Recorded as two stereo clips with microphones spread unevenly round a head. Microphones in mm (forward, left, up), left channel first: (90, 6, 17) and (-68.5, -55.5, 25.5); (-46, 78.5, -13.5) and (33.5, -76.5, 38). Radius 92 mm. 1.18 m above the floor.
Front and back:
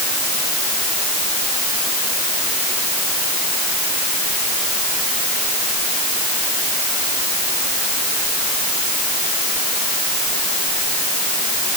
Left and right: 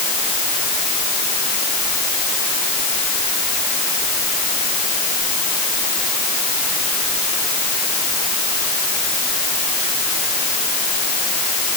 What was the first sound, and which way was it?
Only background noise.